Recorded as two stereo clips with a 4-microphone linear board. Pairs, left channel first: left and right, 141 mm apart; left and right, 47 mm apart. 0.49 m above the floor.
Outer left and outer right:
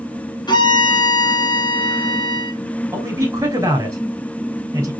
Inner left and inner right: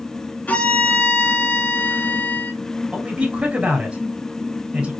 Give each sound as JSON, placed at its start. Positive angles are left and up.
{"t": 0.5, "sound": "a violin", "side_deg": 30, "distance_m": 1.2}
{"t": 2.9, "sound": "a man speaking", "side_deg": -20, "distance_m": 3.0}